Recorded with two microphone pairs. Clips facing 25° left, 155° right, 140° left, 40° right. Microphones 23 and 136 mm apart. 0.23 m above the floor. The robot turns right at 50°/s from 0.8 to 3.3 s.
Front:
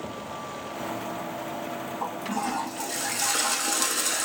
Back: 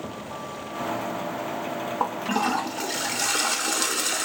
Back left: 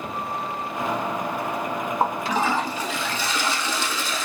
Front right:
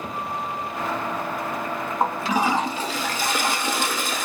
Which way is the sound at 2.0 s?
140° right.